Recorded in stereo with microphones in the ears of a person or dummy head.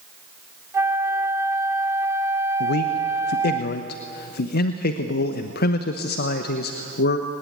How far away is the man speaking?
About 0.9 m.